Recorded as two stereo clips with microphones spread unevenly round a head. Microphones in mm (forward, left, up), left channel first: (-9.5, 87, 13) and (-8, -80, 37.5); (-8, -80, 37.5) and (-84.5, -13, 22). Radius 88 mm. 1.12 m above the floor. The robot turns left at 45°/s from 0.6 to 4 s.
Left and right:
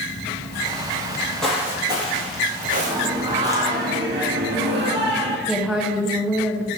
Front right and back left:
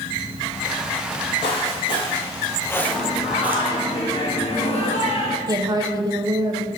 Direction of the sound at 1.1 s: 20° left.